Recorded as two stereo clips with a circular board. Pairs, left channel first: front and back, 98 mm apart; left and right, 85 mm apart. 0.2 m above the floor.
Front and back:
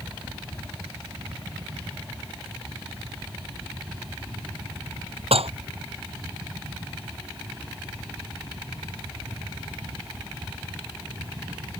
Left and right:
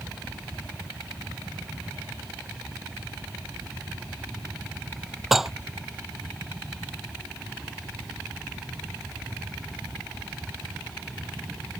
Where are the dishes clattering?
175° right.